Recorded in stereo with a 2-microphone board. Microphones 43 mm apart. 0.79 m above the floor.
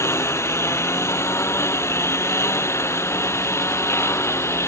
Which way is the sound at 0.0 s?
90° left.